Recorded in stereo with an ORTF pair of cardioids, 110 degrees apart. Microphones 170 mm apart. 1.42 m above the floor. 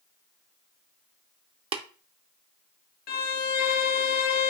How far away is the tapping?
About 0.5 m.